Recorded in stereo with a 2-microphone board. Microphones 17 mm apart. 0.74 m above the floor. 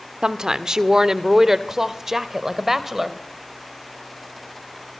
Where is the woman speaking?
45° right (ahead or behind), 1.5 m; by 3.2 s 20° right (ahead or behind), 3 m.